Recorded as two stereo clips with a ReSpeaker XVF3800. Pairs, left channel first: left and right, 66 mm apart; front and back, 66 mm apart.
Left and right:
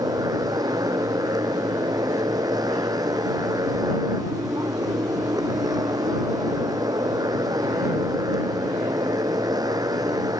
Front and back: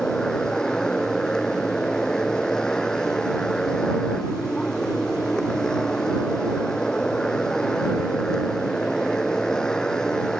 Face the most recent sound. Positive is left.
turn(degrees=-80)